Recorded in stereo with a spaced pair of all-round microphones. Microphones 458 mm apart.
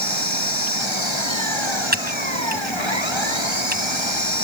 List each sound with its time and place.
0.0 s an engine running: 85° left
1.9 s typing on a keyboard: 20° right (ahead or behind)